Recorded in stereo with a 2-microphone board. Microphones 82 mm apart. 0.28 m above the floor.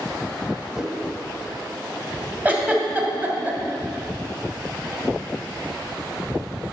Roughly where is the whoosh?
Centre.